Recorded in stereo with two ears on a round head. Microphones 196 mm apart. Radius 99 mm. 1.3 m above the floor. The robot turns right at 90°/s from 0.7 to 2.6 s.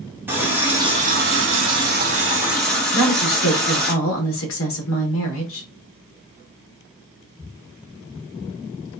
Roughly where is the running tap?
Behind.